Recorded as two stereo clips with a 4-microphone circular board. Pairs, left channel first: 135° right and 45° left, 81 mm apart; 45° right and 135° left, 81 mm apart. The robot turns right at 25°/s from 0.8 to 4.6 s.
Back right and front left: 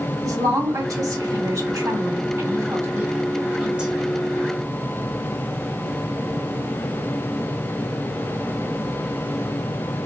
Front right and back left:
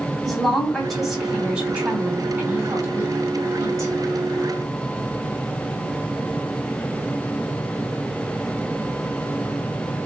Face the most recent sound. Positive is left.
turn(degrees=135)